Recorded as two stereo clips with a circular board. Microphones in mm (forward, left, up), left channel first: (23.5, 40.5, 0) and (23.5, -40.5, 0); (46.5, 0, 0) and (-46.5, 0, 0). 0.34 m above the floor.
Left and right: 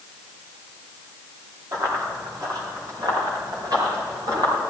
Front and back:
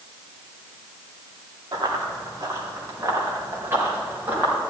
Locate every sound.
1.7 s running footsteps: 135° right, 4 m; by 4.5 s 110° right, 6 m